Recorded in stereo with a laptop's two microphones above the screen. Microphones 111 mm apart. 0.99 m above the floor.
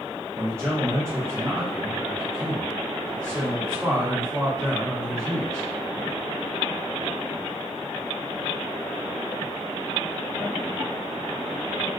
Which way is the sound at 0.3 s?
25° right (ahead or behind).